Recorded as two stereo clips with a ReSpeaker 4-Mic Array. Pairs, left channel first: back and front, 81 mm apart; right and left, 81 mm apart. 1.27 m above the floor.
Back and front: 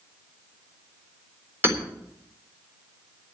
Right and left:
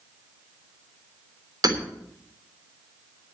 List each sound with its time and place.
1.6 s hammering: 60° left, 3.5 m